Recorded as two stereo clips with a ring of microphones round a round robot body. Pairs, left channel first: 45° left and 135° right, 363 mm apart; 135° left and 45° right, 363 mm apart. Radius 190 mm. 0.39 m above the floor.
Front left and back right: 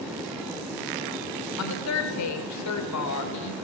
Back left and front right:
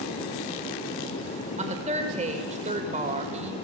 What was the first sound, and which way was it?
A woman speaking, 20° left.